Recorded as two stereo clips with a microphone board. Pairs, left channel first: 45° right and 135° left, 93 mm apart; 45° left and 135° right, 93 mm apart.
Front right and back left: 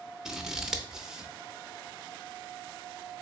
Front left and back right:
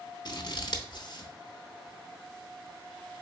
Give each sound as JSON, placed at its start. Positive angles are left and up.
{"t": 0.2, "sound": "scissors", "azimuth_deg": 55, "distance_m": 0.5}